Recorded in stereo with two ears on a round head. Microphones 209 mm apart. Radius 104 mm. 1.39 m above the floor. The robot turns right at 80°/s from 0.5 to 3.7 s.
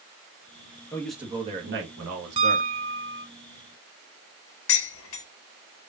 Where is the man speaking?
165° left, 1.5 m; by 2.7 s 55° right, 1.5 m.